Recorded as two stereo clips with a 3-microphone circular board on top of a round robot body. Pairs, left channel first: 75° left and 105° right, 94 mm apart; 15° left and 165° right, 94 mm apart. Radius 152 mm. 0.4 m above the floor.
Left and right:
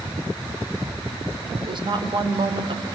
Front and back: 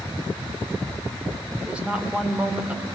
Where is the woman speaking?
90° right, 2.5 m.